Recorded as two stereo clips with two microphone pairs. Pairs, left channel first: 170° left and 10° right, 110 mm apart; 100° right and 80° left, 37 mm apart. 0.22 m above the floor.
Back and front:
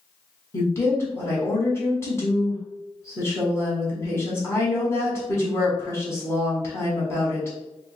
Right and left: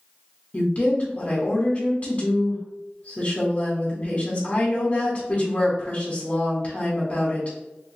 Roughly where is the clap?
I don't hear a clap.